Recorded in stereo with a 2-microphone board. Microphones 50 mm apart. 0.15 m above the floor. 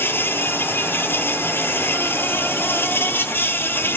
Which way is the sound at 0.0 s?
50° left (ahead or behind).